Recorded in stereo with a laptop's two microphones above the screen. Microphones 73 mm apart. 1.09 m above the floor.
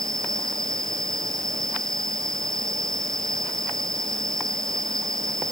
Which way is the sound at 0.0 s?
5° left (ahead or behind).